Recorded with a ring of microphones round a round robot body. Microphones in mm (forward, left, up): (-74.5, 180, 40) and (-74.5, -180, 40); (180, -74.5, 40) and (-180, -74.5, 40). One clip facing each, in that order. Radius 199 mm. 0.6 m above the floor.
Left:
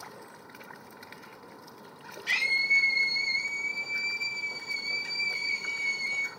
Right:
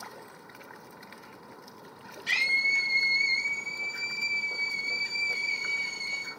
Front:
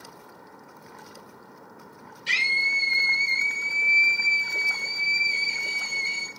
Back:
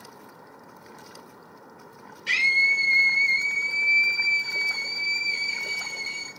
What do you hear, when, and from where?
2.3 s a scream: 40° right, 5.5 m; by 6.3 s 20° right, 5 m